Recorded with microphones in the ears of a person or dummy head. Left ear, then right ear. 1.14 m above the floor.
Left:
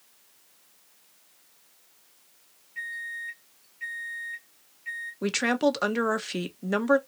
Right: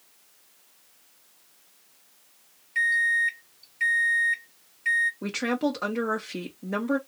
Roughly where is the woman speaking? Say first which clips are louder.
Left 3 dB; left.